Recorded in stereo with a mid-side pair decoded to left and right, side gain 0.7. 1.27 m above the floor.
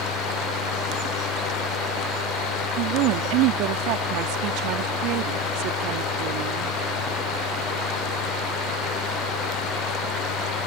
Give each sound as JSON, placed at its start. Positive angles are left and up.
{"t": 0.0, "sound": "a fan", "azimuth_deg": 60}
{"t": 2.8, "sound": "a woman speaking", "azimuth_deg": -70}